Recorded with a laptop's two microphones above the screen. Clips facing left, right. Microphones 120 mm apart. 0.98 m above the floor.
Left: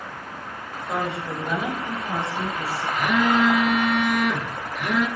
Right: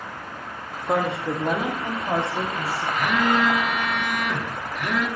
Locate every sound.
0.9 s a woman speaking: 55° right (ahead or behind), 1.9 m; by 2.9 s 70° right (ahead or behind), 3 m
3.0 s a phone buzzing: 10° left (ahead or behind), 1.7 m